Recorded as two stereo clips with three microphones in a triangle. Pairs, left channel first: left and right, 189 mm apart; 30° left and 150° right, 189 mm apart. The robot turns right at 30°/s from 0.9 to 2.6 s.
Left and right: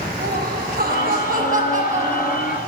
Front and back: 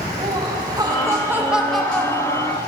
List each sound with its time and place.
0.2 s laughter: 85° right, 1.1 m; by 2.6 s 35° right, 1.1 m